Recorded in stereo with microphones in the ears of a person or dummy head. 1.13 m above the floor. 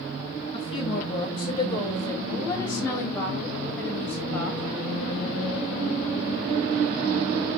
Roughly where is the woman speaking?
Left.